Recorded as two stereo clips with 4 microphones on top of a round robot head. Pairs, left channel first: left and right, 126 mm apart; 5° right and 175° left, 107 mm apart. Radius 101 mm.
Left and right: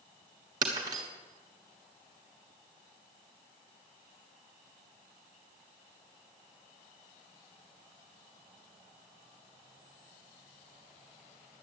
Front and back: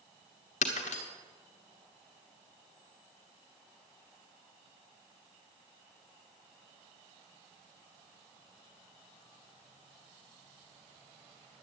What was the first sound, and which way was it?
Breaking glass, 25° right.